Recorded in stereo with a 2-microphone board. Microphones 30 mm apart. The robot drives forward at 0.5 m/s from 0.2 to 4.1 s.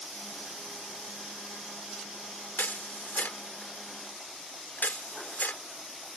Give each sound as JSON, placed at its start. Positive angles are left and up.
{"t": 2.6, "sound": "a camera shutter", "side_deg": 70}